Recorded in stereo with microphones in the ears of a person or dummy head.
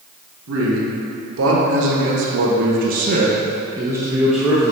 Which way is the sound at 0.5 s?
80° right.